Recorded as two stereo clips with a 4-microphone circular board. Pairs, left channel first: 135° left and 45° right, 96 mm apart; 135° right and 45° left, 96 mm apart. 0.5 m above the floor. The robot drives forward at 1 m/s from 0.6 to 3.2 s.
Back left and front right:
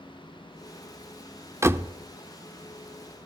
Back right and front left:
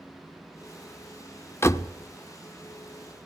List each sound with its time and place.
1.6 s a door slam: 85° right, 0.9 m; by 1.9 s 115° right, 0.9 m